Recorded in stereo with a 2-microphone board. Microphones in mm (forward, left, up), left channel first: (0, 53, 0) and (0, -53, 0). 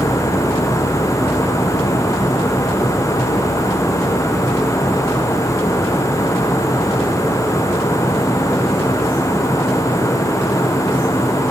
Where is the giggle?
No giggle in this recording.